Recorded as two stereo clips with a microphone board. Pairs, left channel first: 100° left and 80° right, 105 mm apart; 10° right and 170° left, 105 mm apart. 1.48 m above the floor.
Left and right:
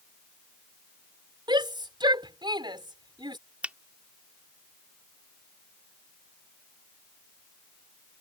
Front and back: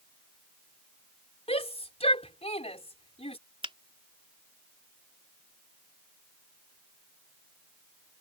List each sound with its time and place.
1.5 s a shout: 35° right
3.6 s a finger snap: 155° right